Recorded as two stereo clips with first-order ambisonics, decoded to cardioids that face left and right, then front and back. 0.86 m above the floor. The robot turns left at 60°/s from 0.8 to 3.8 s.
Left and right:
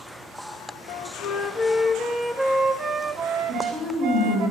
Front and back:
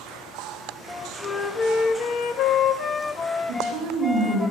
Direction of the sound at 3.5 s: 140° right.